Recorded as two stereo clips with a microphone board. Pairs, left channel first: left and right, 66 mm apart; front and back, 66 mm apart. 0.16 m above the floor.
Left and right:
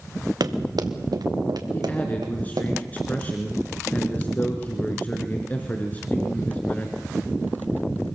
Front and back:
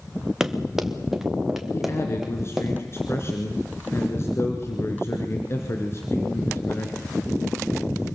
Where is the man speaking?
30° left, 2.5 m.